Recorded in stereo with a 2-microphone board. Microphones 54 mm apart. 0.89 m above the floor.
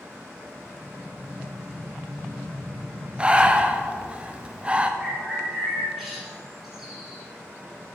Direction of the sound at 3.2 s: 20° right (ahead or behind).